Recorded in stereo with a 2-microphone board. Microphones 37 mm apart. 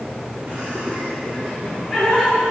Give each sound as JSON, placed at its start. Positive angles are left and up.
{"t": 0.5, "sound": "laughter", "side_deg": -70, "distance_m": 1.3}